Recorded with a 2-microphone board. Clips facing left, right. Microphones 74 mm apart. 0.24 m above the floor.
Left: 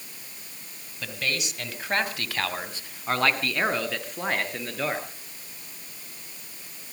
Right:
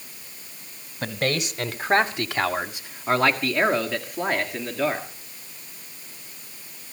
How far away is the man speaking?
About 1.2 m.